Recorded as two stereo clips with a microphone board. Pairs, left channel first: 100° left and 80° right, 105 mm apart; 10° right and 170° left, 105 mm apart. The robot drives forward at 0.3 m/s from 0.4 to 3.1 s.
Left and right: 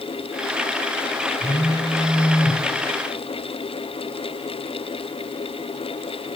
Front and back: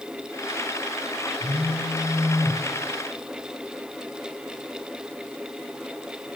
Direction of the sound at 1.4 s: 65° right.